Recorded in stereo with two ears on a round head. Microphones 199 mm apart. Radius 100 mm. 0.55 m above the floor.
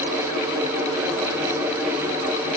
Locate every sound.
Only background noise.